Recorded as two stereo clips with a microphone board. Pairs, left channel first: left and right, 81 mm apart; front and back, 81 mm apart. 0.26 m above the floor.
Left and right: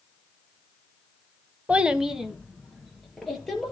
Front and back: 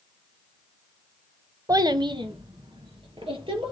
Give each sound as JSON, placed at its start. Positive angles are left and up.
{"t": 1.7, "sound": "a child speaking", "azimuth_deg": -160, "distance_m": 0.7}